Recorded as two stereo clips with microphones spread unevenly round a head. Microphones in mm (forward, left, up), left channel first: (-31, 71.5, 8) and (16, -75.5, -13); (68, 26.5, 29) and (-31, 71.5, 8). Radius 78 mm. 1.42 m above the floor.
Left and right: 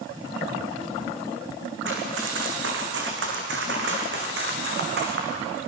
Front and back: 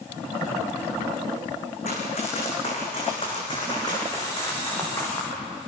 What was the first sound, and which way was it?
Running footsteps, 60° right.